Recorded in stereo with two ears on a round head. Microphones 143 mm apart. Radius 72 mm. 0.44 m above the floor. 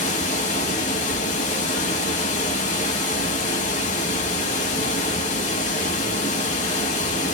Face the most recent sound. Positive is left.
turn(degrees=45)  # may be behind; listen again after turning